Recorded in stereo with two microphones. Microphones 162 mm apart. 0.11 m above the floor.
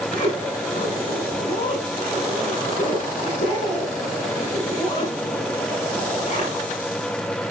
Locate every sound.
0.1 s a zipper: 60° left (ahead or behind), 5.5 m